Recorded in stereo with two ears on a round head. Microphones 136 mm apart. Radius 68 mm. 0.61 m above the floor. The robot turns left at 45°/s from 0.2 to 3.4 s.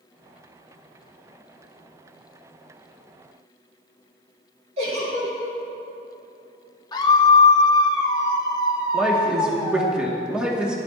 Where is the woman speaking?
5° right (ahead or behind), 1.3 m.